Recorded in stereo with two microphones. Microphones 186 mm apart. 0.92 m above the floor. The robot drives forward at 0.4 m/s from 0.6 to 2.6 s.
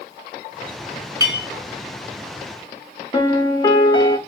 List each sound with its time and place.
1.2 s a clink: 20° right (ahead or behind), 1.1 m; by 1.5 s 25° right (ahead or behind), 1.0 m
3.1 s a piano: 25° left (ahead or behind), 0.7 m